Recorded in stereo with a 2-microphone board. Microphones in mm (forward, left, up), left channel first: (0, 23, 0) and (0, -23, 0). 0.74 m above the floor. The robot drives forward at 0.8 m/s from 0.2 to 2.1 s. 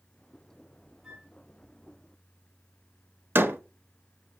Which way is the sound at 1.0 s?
Centre (ahead or behind).